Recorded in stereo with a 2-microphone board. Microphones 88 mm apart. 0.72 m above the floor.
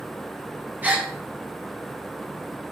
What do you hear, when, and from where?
0.8 s a gasp: 20° right (ahead or behind), 2.5 m